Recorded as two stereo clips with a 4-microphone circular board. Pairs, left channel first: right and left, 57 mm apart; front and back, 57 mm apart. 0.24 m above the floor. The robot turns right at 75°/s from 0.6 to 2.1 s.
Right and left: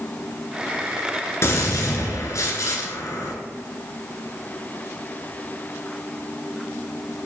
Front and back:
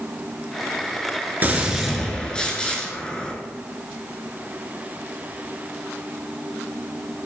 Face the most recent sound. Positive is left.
turn(degrees=-75)